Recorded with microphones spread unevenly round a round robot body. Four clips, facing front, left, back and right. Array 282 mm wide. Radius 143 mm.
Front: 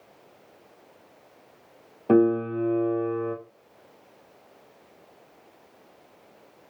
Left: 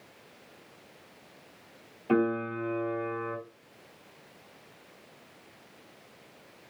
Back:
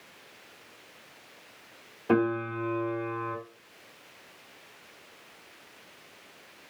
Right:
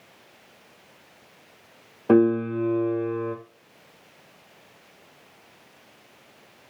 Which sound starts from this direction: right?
A piano, at 2.1 s.